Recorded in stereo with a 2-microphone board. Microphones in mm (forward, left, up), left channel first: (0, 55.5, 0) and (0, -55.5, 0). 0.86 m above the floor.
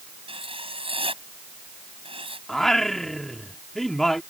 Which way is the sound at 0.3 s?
55° right (ahead or behind).